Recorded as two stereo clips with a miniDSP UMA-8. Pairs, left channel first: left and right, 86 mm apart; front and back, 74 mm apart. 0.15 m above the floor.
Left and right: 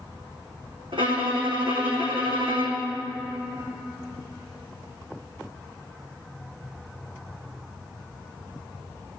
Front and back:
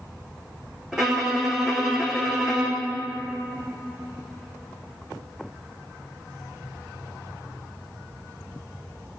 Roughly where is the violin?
Right.